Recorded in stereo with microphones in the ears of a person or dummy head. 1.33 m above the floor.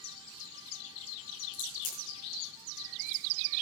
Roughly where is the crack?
Left.